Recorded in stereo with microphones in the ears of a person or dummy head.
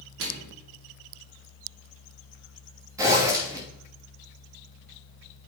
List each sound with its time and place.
0.2 s a microwave: 65° right (ahead or behind), 1.4 m
3.0 s a zipper: 15° right (ahead or behind), 2.5 m